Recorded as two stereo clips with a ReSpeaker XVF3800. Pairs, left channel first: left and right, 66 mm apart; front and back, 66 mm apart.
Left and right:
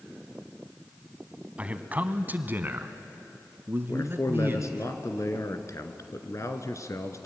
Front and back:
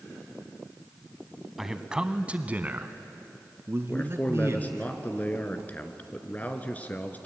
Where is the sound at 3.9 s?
60° left, 2 m.